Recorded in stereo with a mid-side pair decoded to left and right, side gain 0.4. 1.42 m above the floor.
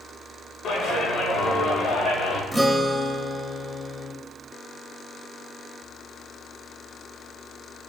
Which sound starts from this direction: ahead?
A guitar, at 2.5 s.